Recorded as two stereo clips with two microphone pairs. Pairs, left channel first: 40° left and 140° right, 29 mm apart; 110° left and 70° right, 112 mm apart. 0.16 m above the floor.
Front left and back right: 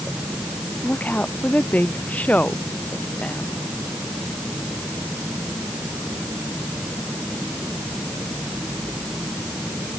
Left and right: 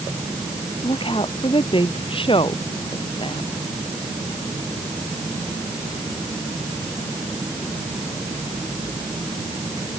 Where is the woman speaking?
70° left.